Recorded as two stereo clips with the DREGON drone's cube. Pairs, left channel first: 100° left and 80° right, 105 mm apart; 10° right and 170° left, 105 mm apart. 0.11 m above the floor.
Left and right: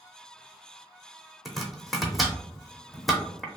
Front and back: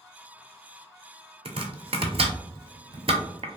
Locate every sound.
1.4 s chopping: 170° right, 0.6 m